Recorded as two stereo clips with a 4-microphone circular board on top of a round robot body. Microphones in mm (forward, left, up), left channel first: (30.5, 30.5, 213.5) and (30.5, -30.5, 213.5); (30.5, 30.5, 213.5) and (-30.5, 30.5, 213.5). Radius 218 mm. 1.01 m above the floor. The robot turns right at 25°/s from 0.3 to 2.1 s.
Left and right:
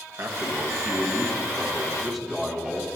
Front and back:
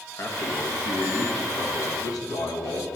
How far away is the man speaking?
About 1.0 m.